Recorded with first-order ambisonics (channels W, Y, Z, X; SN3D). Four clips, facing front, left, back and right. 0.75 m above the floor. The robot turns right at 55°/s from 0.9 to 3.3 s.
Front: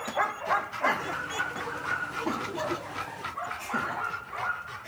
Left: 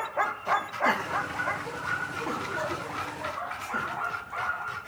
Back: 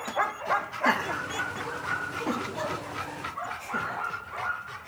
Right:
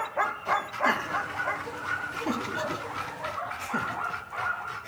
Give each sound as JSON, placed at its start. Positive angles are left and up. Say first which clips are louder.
{"t": 0.8, "sound": "laughter", "louder": "even, back 4 dB", "azimuth_deg": 170, "distance_m": 1.1}